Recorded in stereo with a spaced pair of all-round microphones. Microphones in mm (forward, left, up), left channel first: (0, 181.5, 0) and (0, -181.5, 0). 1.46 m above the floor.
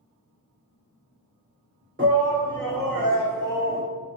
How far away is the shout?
About 1.2 m.